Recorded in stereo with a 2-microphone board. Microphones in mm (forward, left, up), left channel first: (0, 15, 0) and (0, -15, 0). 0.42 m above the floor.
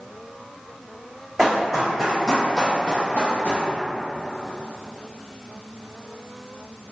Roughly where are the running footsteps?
Centre.